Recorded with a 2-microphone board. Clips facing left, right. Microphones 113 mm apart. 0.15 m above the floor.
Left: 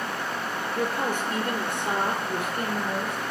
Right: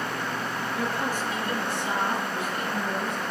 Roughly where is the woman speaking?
Left.